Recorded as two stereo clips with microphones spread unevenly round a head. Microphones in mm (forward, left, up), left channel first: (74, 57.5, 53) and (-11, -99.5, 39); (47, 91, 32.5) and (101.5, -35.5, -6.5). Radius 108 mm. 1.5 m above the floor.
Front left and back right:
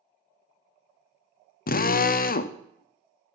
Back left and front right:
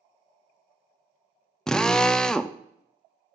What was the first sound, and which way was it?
A drill, 20° left.